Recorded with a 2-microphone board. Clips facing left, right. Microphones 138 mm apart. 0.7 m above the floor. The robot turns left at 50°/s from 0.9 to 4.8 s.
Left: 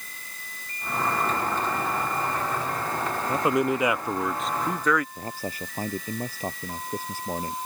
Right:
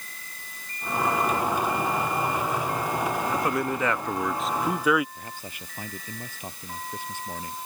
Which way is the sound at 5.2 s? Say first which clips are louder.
Left 7 dB; 40° left (ahead or behind).